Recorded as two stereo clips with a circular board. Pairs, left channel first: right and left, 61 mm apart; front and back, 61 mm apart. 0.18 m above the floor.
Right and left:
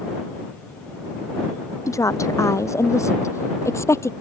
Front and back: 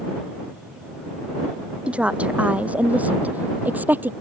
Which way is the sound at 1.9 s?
110° right.